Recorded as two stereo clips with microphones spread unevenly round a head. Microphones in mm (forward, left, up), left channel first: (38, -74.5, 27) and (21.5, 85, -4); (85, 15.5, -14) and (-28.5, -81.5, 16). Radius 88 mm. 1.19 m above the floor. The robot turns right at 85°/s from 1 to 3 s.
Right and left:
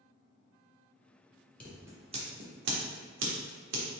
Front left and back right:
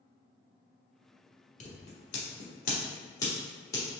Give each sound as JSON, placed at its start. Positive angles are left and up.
{"t": 1.6, "sound": "scissors", "azimuth_deg": -5, "distance_m": 1.3}